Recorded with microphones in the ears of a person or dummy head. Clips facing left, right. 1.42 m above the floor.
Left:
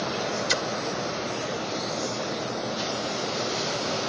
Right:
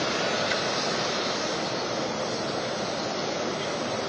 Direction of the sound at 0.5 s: 60° left (ahead or behind).